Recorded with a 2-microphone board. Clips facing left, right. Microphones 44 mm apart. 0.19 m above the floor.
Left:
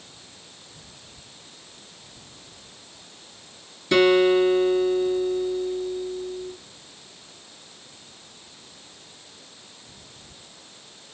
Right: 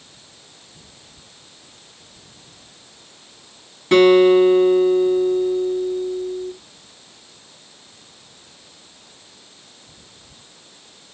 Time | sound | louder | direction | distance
3.9 | a guitar | right 6 dB | 35° right (ahead or behind) | 1.7 m